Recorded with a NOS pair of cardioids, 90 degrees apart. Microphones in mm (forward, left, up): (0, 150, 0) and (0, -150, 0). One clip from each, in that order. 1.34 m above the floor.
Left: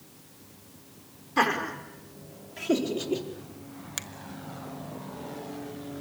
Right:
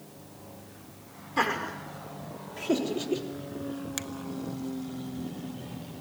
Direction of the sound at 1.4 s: 15° left.